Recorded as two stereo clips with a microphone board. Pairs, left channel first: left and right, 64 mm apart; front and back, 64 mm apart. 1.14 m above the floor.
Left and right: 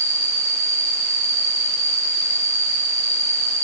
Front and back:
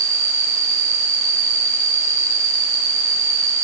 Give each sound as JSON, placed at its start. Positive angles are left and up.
{"t": 0.0, "sound": "an insect", "azimuth_deg": 165, "distance_m": 4.0}